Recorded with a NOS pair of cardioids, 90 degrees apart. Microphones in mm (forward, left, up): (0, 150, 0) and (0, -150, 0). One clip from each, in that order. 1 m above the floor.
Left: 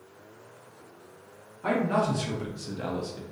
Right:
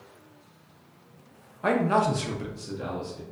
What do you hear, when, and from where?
1.6 s a man speaking: 45° right, 0.7 m; by 3.2 s 40° left, 0.7 m